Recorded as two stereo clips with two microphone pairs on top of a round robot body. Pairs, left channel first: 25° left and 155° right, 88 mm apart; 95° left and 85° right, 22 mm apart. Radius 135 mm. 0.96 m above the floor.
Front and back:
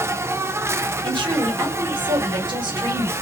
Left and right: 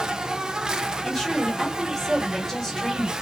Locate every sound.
0.0 s an insect: 120° right, 0.7 m
1.0 s a woman speaking: 175° left, 2.0 m